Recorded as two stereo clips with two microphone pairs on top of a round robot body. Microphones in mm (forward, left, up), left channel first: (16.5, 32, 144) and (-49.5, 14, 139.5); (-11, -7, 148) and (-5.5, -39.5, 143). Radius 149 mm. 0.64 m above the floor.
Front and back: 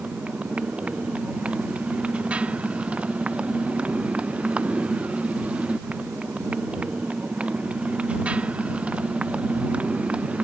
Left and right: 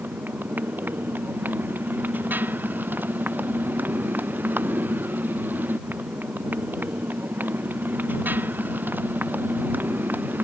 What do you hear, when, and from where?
0.0 s a motorcycle: 90° right